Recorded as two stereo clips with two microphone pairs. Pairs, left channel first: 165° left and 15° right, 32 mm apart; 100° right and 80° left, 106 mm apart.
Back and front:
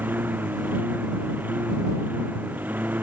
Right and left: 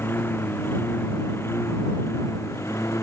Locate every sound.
0.0 s a lawn mower: 30° right; by 3.0 s 35° right